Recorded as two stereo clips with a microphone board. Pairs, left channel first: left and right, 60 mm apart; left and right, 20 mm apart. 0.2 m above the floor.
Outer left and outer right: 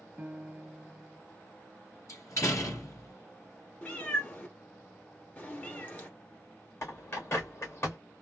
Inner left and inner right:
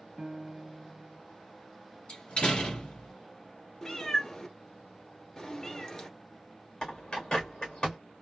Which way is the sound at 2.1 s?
60° left (ahead or behind).